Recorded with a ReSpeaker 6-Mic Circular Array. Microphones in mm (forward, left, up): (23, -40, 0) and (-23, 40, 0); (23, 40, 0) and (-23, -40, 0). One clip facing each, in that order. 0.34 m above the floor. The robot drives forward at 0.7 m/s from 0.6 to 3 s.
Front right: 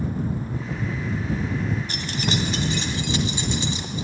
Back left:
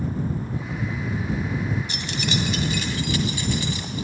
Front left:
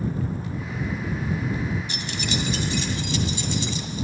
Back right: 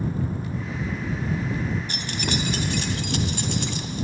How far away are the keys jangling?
About 1.5 m.